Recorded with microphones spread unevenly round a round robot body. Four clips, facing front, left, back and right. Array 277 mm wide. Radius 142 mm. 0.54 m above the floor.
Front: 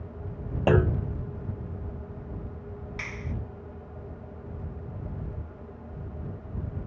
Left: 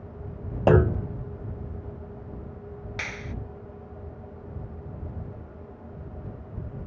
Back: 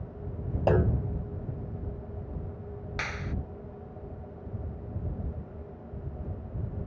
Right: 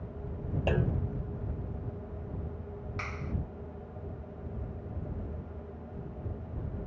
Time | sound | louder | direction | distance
0.7 | a clunk | left 12 dB, front 2 dB | 70° left | ?
3.0 | a clap | left 3 dB, back 3 dB | 140° left | ?